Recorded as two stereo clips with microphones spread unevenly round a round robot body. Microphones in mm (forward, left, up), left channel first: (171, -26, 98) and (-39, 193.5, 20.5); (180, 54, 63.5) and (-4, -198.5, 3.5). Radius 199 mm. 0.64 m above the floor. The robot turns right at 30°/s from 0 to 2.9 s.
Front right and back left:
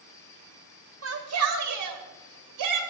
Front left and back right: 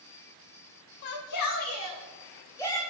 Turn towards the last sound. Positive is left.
turn(degrees=150)